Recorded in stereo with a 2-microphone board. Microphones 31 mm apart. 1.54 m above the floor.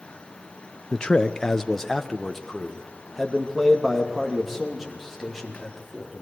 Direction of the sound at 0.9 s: 35° left (ahead or behind).